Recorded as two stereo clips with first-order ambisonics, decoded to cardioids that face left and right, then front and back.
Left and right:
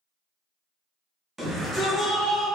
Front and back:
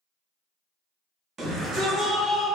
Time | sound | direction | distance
1.4 | a shout | 155° right | 0.7 m